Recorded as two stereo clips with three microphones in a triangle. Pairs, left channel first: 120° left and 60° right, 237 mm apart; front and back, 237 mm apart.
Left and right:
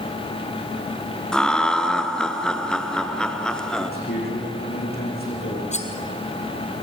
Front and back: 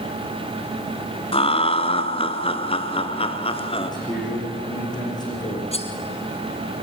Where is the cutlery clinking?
65° left, 2 m.